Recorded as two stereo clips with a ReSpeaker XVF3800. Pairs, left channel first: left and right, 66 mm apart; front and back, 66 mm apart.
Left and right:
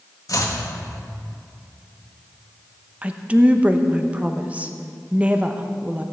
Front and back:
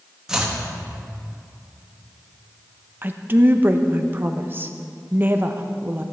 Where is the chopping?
100° left, 1.5 m.